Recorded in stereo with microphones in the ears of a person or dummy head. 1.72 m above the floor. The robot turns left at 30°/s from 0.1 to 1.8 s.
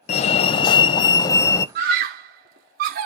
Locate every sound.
0.1 s a fire alarm: 80° left, 0.5 m; by 1.6 s 30° left, 0.5 m
1.8 s a scream: 50° right (ahead or behind), 1.0 m